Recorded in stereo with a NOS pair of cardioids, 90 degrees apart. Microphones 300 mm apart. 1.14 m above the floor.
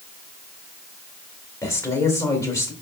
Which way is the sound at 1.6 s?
10° left.